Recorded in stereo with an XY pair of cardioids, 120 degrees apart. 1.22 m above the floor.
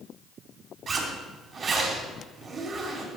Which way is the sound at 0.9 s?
40° right.